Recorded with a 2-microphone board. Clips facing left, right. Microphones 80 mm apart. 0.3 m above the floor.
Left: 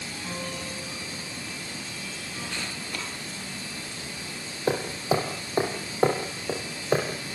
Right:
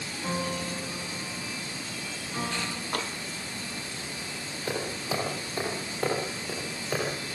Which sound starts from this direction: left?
Hammering, at 4.7 s.